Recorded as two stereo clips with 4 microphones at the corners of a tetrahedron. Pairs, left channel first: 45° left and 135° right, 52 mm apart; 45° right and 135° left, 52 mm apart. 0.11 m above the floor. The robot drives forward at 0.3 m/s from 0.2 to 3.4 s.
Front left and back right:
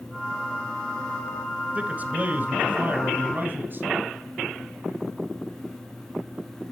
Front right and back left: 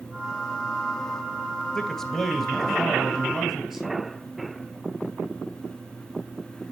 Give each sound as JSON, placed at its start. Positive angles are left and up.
{"t": 1.8, "sound": "a man speaking", "azimuth_deg": -120, "distance_m": 1.2}